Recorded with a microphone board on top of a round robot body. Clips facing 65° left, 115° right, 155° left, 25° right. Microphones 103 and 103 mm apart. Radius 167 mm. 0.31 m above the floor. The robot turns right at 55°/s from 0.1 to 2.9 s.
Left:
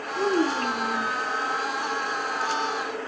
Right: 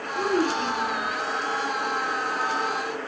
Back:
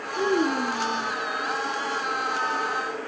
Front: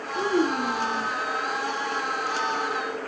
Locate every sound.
0.1 s a child speaking: 50° right, 2.5 m; by 1.1 s 5° left, 2.5 m